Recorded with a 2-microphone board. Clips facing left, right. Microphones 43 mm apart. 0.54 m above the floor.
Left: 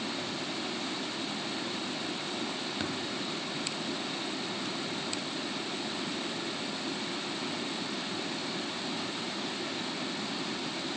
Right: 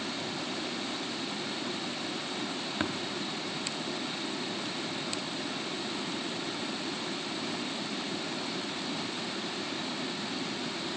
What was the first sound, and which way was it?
Tapping, 30° right (ahead or behind).